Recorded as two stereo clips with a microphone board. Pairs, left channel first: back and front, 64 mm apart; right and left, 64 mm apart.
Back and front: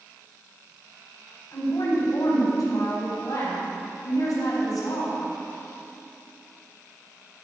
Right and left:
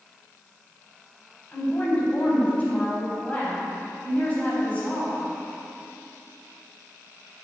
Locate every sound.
1.5 s a woman speaking: 155° right, 4 m